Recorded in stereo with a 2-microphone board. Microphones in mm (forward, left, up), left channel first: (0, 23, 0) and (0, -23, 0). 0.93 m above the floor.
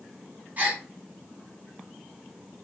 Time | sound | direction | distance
0.6 | a gasp | 35° right (ahead or behind) | 1.2 m